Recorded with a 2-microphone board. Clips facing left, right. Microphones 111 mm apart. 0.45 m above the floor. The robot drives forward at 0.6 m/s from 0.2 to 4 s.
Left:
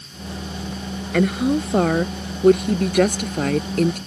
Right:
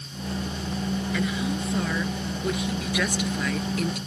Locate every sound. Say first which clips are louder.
1.1 s a woman speaking: left 14 dB; 60° left (ahead or behind); by 4.0 s 50° left (ahead or behind)